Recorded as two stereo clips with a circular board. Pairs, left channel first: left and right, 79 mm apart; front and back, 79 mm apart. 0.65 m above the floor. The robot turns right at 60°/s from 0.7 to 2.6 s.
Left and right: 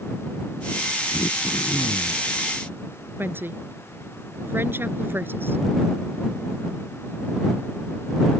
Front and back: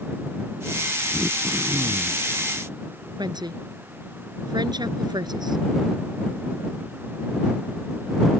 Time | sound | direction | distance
1.1 | throat clearing | 90° left | ?
3.2 | a woman speaking | 155° right | ?